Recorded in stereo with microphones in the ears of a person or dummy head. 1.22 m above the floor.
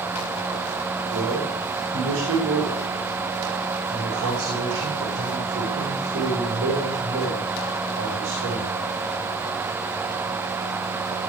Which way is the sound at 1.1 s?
60° right (ahead or behind).